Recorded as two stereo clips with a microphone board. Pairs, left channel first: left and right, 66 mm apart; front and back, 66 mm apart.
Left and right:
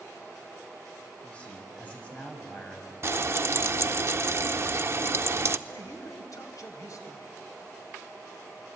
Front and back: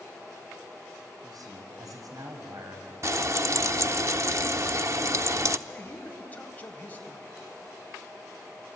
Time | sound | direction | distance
1.2 | a man speaking | 160° left | 5 m
3.0 | frying | 135° right | 0.6 m
5.7 | a man speaking | 65° left | 3.5 m